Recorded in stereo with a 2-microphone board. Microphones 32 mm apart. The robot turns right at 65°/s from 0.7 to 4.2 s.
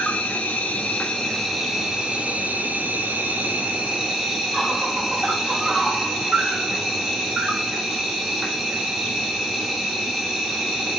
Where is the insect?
120° left, 0.8 m; by 11.0 s 15° right, 0.8 m.